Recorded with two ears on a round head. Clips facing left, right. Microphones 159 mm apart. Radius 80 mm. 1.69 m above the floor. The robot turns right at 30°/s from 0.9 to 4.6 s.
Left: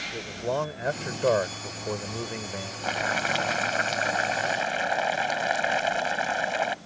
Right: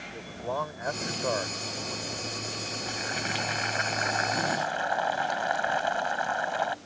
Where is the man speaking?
35° left; by 2.7 s 90° left.